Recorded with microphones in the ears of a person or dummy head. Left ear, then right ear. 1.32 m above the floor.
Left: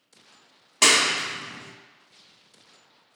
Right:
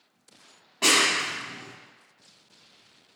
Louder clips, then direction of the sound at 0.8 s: Left 2 dB; 75° left (ahead or behind).